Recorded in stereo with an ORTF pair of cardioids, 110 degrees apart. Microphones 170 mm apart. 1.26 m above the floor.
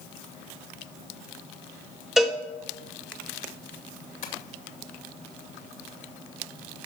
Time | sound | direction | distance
2.2 | a cowbell | 5° right | 1.4 m
4.2 | tapping | 60° left | 2.5 m